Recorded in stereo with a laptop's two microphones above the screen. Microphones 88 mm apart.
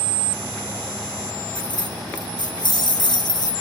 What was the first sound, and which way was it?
Keys jangling, 55° left (ahead or behind).